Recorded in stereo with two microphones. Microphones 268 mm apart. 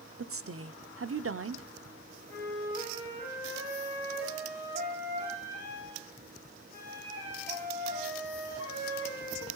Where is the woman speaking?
55° right (ahead or behind), 0.6 m.